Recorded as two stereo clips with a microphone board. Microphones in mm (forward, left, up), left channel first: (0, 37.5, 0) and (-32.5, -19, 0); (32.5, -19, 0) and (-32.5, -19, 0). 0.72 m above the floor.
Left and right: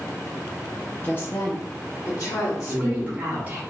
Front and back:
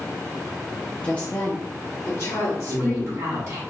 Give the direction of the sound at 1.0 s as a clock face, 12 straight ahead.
10 o'clock.